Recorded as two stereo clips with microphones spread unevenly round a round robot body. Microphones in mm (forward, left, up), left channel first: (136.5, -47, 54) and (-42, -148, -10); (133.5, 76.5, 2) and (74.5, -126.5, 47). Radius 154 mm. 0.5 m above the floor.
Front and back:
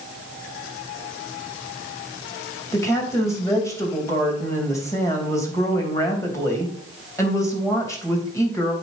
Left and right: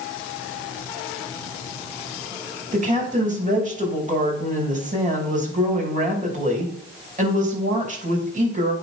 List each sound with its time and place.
2.7 s a woman speaking: 50° right, 3 m